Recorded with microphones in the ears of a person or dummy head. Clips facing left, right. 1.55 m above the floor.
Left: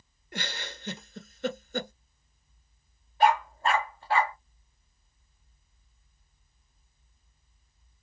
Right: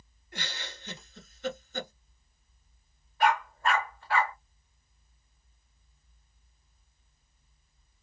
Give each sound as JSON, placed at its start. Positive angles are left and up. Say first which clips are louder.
{"t": 0.3, "sound": "a giggle", "louder": "left 4 dB", "side_deg": 50, "distance_m": 1.2}
{"t": 3.2, "sound": "a dog barking", "louder": "left 3 dB", "side_deg": 30, "distance_m": 1.2}